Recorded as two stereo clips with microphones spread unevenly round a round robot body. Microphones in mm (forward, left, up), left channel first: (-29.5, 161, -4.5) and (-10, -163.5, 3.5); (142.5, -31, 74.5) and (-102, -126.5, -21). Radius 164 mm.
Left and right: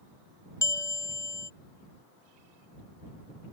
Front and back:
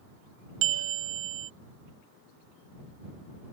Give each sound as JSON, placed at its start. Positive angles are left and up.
{"t": 0.6, "sound": "a bell", "azimuth_deg": 175}